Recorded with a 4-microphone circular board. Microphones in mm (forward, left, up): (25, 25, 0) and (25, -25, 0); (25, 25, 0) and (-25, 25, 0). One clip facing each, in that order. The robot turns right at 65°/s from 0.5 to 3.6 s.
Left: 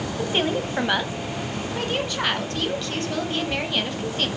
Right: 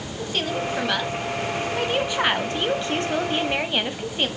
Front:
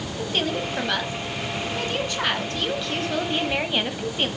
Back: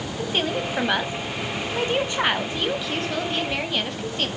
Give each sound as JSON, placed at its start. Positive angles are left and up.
{"t": 0.2, "sound": "a woman speaking", "azimuth_deg": 110, "distance_m": 1.3}